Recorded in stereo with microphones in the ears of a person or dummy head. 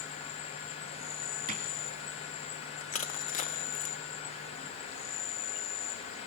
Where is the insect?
35° left (ahead or behind), 1.4 m.